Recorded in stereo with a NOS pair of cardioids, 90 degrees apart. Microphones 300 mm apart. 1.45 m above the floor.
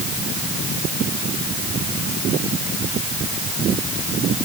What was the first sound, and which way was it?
Only background noise.